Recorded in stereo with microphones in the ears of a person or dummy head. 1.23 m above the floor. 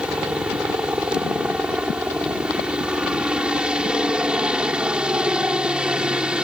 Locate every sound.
0.0 s a helicopter: 15° right (ahead or behind)